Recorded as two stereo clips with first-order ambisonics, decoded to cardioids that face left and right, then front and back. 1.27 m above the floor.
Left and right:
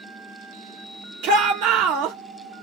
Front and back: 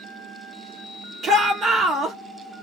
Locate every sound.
1.2 s a shout: 110° right, 2.0 m